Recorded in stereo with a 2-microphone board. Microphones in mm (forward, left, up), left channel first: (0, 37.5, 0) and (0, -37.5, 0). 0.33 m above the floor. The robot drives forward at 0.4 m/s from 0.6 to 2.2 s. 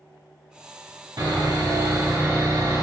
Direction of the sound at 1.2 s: 65° right (ahead or behind).